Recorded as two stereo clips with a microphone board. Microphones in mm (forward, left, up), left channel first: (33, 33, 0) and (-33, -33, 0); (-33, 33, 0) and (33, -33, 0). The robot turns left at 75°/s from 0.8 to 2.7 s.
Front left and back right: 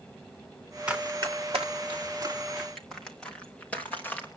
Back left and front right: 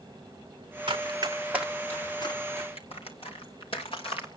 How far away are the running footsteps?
About 3 m.